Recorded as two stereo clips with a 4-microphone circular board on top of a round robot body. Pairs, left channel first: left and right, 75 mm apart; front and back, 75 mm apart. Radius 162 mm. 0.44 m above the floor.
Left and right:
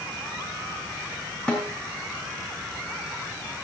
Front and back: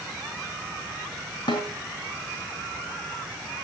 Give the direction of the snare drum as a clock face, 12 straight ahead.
12 o'clock.